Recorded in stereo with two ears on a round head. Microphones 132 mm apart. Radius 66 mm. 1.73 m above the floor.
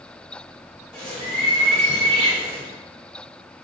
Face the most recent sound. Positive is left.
turn(degrees=5)  # may be behind; listen again after turning